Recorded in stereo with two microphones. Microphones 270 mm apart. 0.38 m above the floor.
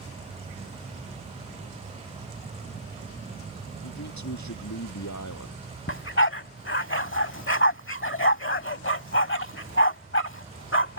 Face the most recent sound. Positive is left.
turn(degrees=45)  # may be behind; listen again after turning